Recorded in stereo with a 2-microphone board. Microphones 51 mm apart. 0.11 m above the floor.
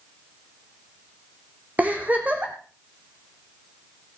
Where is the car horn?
No car horn in this recording.